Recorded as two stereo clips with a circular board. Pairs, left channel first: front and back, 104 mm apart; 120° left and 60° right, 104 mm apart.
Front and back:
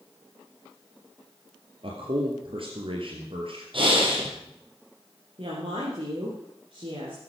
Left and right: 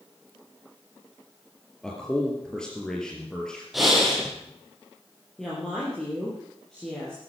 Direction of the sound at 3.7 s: 150° right.